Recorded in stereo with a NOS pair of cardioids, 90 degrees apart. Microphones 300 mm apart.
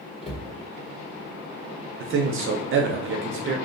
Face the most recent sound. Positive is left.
turn(degrees=-45)